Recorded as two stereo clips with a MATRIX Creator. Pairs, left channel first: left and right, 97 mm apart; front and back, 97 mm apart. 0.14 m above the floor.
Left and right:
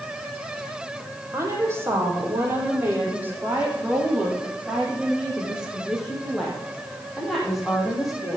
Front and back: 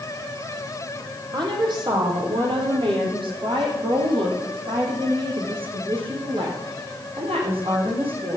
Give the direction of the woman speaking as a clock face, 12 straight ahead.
5 o'clock.